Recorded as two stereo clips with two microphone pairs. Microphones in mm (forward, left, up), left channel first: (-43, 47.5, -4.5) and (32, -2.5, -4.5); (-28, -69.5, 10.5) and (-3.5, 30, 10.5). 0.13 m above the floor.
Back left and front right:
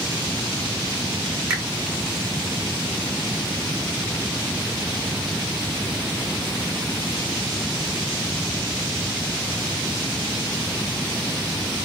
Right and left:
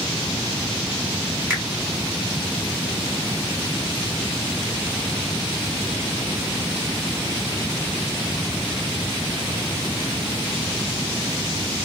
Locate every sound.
1.5 s a finger snap: 30° left, 1.6 m